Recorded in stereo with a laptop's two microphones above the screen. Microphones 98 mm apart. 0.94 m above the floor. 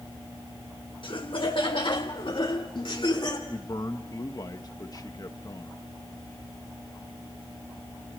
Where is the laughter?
60° left (ahead or behind), 1.0 m.